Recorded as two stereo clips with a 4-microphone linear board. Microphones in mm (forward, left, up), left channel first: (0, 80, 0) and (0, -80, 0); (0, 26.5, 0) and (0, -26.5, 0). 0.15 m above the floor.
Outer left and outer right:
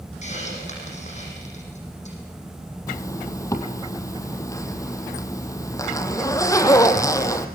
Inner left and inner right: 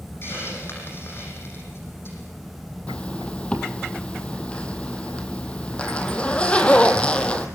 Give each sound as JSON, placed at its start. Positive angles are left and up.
{"t": 0.2, "sound": "a hiss", "side_deg": 45, "distance_m": 7.0}
{"t": 2.9, "sound": "a zipper", "side_deg": 20, "distance_m": 1.8}